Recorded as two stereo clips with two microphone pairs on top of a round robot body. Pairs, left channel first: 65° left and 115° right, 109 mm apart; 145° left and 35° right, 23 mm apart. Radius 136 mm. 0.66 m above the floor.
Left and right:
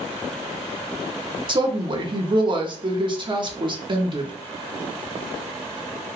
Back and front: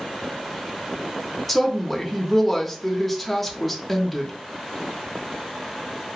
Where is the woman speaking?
110° right, 0.7 m.